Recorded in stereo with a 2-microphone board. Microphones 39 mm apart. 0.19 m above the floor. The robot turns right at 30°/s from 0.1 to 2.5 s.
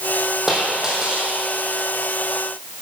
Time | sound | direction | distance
0.5 | a dropped coin | 5° right (ahead or behind) | 3 m